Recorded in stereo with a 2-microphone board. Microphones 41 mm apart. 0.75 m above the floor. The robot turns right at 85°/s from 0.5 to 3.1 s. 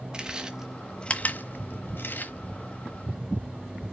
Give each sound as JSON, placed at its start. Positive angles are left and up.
{"t": 0.1, "sound": "chewing", "side_deg": -20, "distance_m": 0.9}